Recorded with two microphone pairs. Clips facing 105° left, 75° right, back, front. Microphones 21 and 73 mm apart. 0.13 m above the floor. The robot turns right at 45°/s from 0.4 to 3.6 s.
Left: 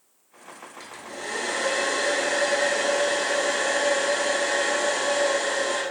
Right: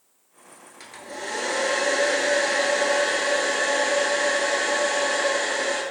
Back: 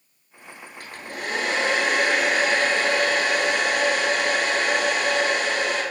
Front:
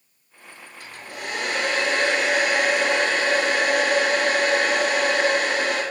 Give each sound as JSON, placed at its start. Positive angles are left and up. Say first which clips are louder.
{"t": 0.8, "sound": "a hair dryer", "louder": "right 2 dB, back 2 dB", "azimuth_deg": -165, "distance_m": 0.7}